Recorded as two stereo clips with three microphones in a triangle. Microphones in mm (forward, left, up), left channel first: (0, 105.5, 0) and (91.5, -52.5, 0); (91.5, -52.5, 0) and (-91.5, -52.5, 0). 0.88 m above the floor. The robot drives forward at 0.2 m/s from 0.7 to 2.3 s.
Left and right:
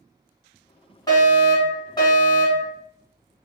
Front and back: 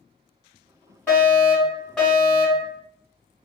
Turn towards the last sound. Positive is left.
turn(degrees=85)